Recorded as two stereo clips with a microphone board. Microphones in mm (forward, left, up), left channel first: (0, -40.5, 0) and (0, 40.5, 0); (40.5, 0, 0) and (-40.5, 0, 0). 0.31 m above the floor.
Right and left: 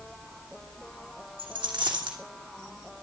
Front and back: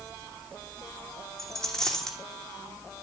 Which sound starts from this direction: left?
A dropped coin, at 1.4 s.